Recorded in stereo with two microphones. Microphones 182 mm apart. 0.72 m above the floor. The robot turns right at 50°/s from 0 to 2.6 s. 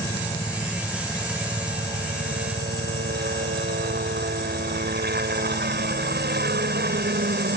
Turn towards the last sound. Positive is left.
turn(degrees=-100)